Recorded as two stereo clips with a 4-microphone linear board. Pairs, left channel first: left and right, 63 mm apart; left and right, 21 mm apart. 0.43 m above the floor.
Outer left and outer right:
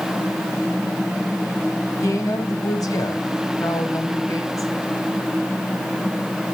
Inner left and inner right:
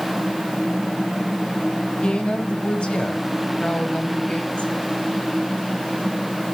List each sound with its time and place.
2.0 s a woman speaking: 55° left (ahead or behind), 2.5 m